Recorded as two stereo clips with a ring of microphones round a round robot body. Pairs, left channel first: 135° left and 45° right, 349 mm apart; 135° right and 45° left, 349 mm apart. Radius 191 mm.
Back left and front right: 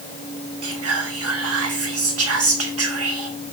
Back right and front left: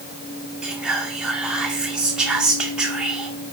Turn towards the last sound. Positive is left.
turn(degrees=-40)